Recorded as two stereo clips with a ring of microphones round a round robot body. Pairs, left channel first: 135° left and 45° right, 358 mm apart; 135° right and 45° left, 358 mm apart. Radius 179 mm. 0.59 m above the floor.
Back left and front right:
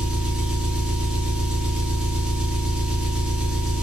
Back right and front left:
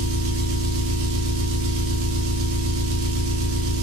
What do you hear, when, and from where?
0.0 s an engine running: 40° left, 0.8 m